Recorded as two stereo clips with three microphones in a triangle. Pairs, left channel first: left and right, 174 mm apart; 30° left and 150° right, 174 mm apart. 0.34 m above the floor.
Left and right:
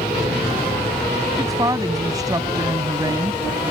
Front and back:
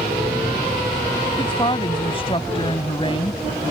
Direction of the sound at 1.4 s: 25° right.